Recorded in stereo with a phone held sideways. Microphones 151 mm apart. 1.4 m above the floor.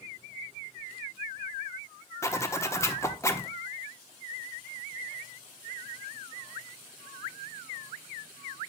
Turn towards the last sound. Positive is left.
turn(degrees=20)  # may be behind; listen again after turning